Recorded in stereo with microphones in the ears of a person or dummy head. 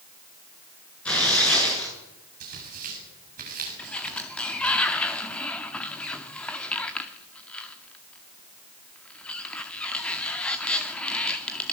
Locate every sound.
1.1 s tearing paper: 5° left (ahead or behind), 9.5 m
2.4 s tearing paper: 45° right (ahead or behind), 6.5 m
3.8 s a sliding door: 5° left (ahead or behind), 2.0 m